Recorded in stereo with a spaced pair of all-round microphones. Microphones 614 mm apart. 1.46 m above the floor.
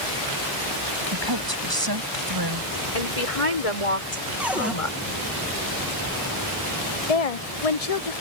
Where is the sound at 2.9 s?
65° left (ahead or behind).